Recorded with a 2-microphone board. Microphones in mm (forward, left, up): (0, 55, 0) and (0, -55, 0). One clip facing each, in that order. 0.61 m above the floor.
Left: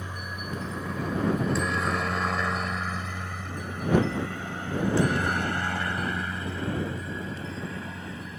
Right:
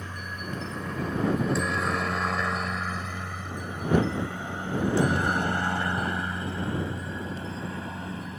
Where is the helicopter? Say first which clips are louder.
Even; 10° left (ahead or behind); by 8.4 s 30° right (ahead or behind).